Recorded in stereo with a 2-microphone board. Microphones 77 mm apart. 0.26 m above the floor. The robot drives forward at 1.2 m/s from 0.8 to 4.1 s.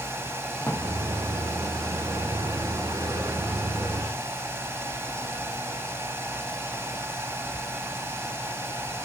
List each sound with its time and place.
0.6 s a drawer: 15° left (ahead or behind), 2.5 m